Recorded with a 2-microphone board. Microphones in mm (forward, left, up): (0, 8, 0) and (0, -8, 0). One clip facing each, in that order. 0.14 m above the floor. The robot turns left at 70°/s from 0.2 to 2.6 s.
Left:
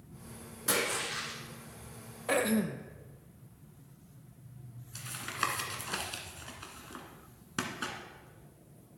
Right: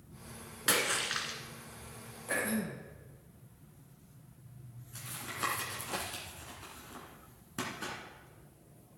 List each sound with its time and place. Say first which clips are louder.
0.7 s a splash: right 1 dB; 90° right, 1.8 m; by 1.4 s 140° right, 1.8 m
2.3 s throat clearing: left 5 dB; 80° left, 0.9 m; by 2.9 s 65° left (ahead or behind), 0.9 m
5.0 s tapping: left 4 dB; 35° left (ahead or behind), 1.6 m